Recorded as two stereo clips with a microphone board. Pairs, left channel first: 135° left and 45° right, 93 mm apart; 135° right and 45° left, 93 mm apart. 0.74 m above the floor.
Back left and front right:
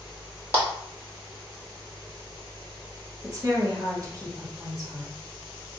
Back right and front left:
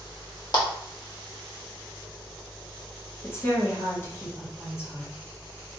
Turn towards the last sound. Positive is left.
turn(degrees=-80)